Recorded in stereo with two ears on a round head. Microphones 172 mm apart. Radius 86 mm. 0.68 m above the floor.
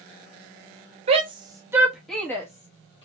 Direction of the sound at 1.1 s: 30° right (ahead or behind).